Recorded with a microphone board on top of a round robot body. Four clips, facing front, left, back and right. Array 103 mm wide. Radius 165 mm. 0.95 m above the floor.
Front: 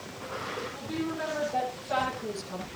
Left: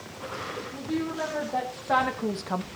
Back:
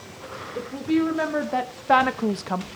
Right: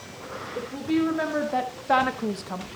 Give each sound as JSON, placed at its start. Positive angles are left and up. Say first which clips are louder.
{"t": 0.6, "sound": "a woman speaking", "louder": "right 7 dB, back 14 dB", "azimuth_deg": -150, "distance_m": 3.5}